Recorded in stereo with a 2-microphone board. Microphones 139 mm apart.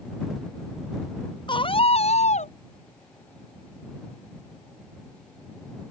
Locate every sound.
1.5 s a scream: 35° left (ahead or behind); by 2.5 s 60° left (ahead or behind)